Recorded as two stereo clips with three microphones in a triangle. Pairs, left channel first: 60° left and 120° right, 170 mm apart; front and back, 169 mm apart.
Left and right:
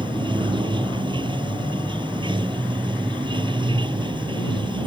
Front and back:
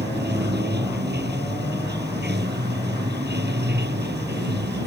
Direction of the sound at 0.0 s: 175° left.